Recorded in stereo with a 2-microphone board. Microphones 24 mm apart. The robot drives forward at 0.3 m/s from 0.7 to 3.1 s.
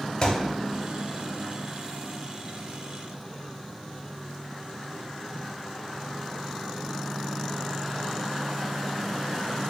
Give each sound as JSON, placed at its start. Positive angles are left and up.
{"t": 0.2, "sound": "a thud", "side_deg": 30, "distance_m": 0.8}